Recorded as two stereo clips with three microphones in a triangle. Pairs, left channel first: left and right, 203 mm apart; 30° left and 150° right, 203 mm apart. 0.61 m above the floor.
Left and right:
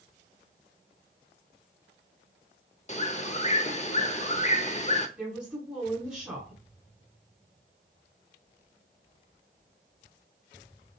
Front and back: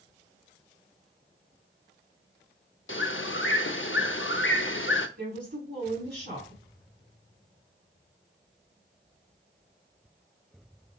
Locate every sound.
2.9 s a bird: 40° left, 0.6 m
5.2 s a woman speaking: 175° right, 2.5 m